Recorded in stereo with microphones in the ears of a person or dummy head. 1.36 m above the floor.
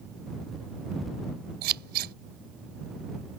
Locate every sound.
1.6 s scissors: 55° right (ahead or behind)